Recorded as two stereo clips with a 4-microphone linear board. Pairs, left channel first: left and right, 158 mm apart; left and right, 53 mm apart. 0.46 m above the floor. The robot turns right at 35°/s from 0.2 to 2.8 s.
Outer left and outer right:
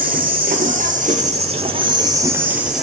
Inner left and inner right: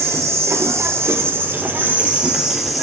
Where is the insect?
95° right, 1.0 m; by 2.9 s straight ahead, 1.0 m.